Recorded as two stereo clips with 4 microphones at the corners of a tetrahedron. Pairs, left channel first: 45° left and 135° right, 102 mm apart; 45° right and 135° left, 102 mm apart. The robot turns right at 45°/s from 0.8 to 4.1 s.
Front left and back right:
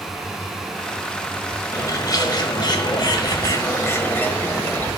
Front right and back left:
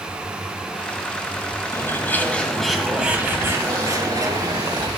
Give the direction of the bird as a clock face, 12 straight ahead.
12 o'clock.